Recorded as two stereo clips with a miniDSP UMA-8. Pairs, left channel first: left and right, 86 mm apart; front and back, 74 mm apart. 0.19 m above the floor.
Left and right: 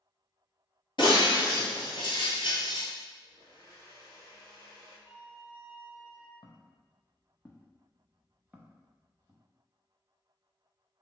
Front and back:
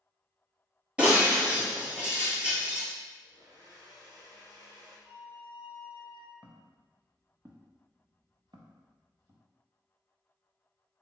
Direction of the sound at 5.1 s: 60° right.